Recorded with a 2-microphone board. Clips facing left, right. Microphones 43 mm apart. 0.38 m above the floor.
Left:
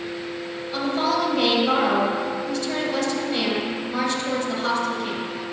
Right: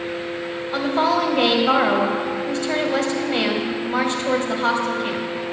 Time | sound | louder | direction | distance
0.7 | a woman speaking | right 3 dB | 40° right (ahead or behind) | 2 m